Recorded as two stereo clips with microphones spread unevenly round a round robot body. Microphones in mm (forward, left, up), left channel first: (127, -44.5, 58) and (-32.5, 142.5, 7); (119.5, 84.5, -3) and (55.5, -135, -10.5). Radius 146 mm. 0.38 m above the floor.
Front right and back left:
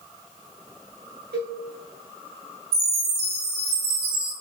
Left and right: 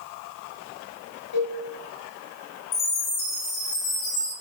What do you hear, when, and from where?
1.3 s a cowbell: 80° left, 7.5 m
2.7 s a chime: 125° left, 7 m